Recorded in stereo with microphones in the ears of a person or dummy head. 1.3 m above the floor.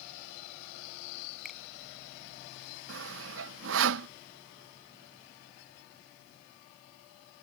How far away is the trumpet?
No trumpet in this recording.